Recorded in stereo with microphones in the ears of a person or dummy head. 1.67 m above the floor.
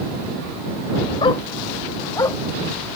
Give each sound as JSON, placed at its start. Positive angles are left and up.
{"t": 1.2, "sound": "a dog barking", "side_deg": 30}